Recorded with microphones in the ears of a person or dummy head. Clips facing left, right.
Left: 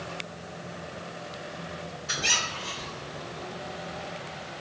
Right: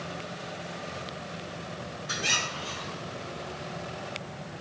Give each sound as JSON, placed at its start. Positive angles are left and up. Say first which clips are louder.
{"t": 2.1, "sound": "a squeak", "louder": "right 1 dB", "side_deg": 50, "distance_m": 1.8}